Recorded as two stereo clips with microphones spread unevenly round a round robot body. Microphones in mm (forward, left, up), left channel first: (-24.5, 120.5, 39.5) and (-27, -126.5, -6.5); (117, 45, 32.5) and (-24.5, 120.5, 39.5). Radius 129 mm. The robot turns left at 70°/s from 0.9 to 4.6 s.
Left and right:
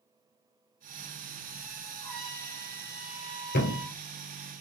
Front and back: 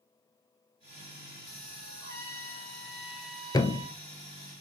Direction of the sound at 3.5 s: 40° left.